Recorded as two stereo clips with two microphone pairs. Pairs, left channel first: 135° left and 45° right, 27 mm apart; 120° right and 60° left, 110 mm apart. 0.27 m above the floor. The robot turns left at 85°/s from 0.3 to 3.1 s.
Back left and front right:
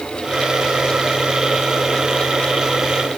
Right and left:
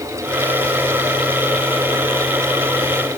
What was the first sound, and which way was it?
Only background noise.